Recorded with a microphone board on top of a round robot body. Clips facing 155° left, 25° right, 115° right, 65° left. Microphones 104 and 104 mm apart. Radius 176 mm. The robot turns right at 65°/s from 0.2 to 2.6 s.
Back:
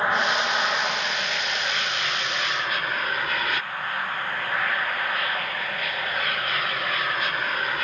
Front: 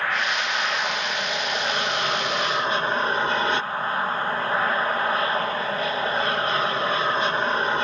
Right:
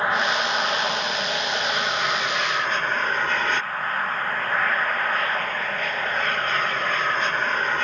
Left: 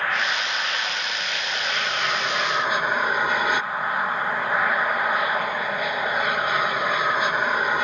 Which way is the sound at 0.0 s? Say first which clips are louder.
Back 3 dB, right 3 dB; 160° right.